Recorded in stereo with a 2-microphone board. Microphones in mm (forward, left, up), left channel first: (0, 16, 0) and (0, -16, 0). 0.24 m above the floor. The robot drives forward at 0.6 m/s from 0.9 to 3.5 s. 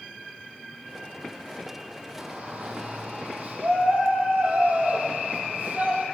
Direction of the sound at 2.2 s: 40° right (ahead or behind).